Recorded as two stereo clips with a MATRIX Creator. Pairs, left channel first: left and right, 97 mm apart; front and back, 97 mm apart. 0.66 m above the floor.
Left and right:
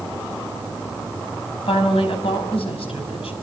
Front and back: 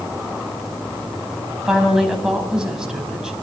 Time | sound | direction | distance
1.6 | a woman speaking | 100° left | 5 m